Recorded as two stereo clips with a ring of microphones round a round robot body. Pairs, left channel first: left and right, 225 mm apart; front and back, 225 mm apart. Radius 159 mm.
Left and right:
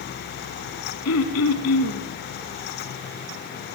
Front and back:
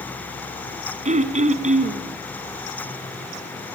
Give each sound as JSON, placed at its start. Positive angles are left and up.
{"t": 1.1, "sound": "throat clearing", "azimuth_deg": 125, "distance_m": 2.5}